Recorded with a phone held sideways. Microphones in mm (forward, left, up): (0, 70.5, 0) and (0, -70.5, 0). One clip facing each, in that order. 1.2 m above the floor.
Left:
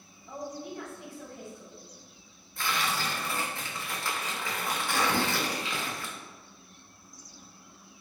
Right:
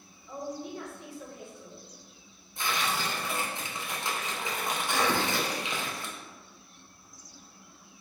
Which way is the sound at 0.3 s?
50° left (ahead or behind).